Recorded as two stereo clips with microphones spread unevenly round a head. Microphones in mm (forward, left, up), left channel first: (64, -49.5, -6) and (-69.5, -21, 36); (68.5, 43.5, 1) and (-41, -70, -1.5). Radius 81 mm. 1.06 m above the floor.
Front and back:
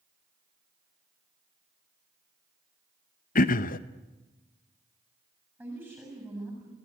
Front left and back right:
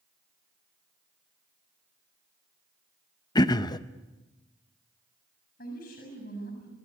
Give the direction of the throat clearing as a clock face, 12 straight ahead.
1 o'clock.